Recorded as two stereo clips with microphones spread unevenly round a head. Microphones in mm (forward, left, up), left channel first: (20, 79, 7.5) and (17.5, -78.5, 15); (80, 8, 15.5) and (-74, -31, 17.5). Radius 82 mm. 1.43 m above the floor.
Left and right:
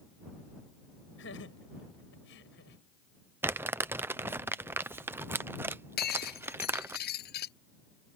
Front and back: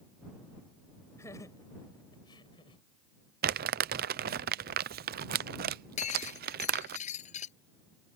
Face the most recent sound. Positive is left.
turn(degrees=65)